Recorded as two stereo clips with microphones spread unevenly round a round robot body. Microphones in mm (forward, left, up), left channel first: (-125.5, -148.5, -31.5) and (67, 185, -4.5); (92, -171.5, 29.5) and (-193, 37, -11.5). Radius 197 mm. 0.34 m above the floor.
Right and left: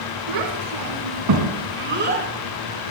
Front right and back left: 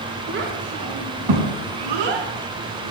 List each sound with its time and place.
0.3 s a child speaking: 80° left, 3.5 m; by 2.3 s 135° left, 3.5 m